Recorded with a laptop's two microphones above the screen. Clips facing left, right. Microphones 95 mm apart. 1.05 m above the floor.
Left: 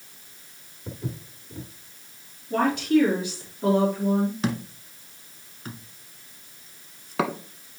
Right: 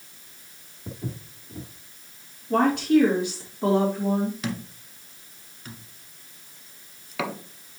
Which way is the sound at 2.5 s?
65° right (ahead or behind).